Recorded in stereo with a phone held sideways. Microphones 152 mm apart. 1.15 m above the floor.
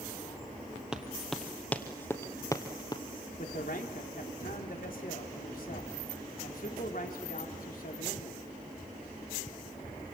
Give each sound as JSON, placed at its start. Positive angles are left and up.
{"t": 0.9, "sound": "running footsteps", "side_deg": -5, "distance_m": 2.0}
{"t": 3.4, "sound": "a man speaking", "side_deg": 70, "distance_m": 3.5}